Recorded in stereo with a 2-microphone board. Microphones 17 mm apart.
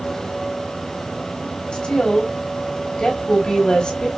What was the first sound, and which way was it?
A woman speaking, 70° left (ahead or behind).